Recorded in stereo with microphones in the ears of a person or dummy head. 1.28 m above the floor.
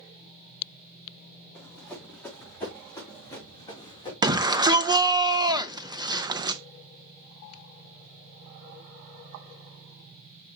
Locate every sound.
1.6 s running footsteps: 5° left (ahead or behind), 4.5 m; by 4.1 s 20° left (ahead or behind), 3.5 m
4.2 s a shout: 25° right (ahead or behind), 0.6 m